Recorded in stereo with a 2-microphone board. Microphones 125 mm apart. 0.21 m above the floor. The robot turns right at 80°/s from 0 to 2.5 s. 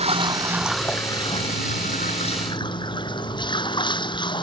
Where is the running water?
60° right; by 4.4 s 140° left.